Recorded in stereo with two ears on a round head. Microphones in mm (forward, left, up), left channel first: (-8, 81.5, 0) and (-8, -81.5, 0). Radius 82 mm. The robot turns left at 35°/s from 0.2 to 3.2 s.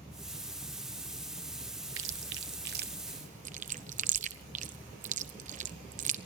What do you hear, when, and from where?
2.0 s chewing: 85° right, 1.0 m; by 6.2 s 45° right (ahead or behind), 1.0 m